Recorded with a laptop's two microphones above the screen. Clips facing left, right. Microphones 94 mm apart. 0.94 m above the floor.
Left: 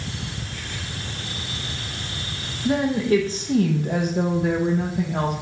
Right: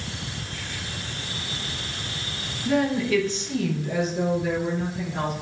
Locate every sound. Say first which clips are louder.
2.6 s a woman speaking: left 2 dB; 25° left (ahead or behind), 1.3 m; by 5.3 s 40° left (ahead or behind), 1.3 m